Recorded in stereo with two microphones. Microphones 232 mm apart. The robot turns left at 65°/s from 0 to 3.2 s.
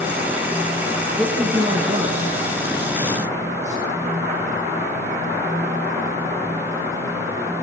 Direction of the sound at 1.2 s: 5° right (ahead or behind).